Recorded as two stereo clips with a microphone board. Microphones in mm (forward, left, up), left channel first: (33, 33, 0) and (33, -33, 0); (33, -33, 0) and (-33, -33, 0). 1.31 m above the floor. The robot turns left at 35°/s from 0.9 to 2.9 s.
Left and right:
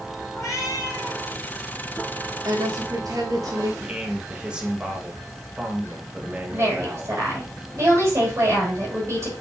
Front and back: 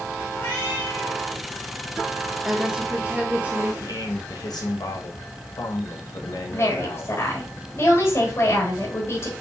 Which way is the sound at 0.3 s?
60° left.